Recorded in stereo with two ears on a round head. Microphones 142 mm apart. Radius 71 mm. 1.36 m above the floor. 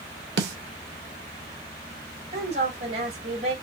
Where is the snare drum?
75° right (ahead or behind), 0.8 m.